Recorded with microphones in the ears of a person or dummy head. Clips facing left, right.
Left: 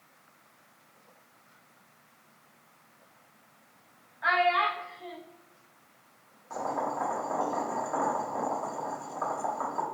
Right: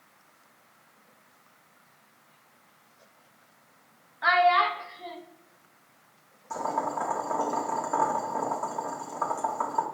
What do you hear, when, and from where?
4.2 s a child speaking: 65° right (ahead or behind), 0.8 m
6.5 s boiling: 45° right (ahead or behind), 1.3 m